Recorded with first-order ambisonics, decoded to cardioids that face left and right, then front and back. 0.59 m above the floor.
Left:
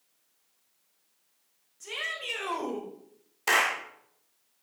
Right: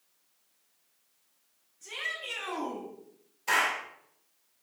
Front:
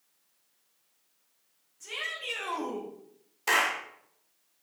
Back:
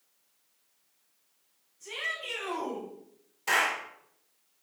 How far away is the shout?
About 2.5 m.